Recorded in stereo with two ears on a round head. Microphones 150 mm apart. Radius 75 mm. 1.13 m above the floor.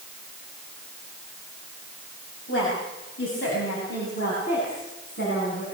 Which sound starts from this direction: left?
A woman speaking, at 2.5 s.